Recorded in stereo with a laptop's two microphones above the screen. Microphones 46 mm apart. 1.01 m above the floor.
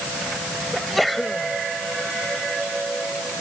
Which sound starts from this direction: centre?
A sneeze, at 0.7 s.